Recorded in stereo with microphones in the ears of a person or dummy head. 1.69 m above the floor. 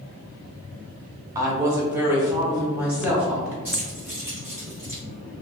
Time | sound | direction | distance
1.4 | a woman speaking | 20° right (ahead or behind) | 0.6 m
3.6 | keys jangling | 10° right (ahead or behind) | 0.9 m